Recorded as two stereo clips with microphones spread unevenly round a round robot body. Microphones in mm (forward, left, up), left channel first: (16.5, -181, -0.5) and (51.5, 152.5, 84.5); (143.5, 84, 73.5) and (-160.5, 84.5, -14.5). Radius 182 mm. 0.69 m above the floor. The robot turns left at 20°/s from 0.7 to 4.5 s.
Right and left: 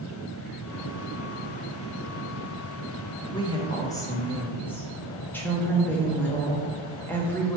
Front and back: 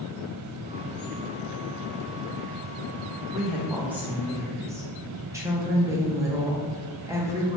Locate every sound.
3.3 s a woman speaking: 120° right, 0.7 m; by 7.6 s 145° right, 0.7 m